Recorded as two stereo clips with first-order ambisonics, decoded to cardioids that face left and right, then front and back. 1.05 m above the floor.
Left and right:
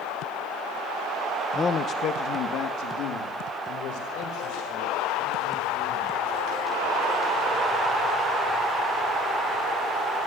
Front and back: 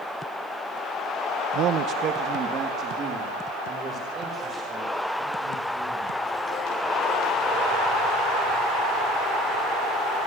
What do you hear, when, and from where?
1.6 s a man speaking: 170° left, 0.7 m; by 6.2 s 115° left, 7.5 m